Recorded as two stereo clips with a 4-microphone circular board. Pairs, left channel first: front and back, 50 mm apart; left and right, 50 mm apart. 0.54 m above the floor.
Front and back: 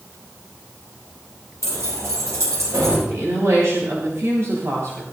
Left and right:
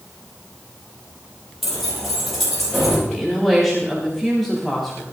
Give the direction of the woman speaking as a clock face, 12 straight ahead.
6 o'clock.